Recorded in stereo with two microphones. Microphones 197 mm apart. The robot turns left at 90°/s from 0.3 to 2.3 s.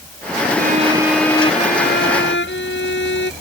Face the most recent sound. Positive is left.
turn(degrees=80)